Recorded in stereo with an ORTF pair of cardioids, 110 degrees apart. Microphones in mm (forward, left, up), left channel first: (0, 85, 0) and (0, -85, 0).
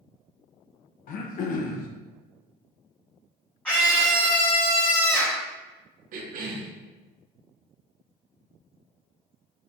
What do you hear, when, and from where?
1.1 s throat clearing: 55° left, 0.5 m
3.6 s a scream: 10° left, 0.6 m
6.1 s a cough: 55° right, 0.7 m